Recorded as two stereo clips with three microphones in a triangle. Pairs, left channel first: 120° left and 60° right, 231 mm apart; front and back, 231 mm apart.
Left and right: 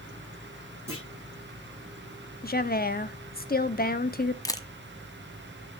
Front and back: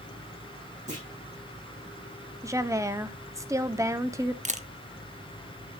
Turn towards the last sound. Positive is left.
turn(degrees=175)